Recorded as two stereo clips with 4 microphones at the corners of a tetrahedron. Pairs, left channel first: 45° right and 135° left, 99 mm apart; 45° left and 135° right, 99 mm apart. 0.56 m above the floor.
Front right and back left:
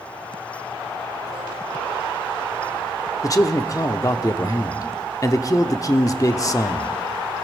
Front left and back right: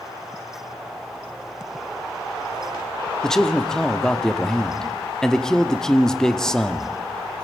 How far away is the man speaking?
About 0.7 m.